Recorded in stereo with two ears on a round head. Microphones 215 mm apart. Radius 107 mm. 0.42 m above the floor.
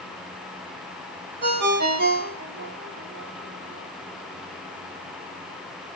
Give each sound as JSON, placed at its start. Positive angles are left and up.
{"t": 1.4, "sound": "a ringtone", "side_deg": -45, "distance_m": 0.9}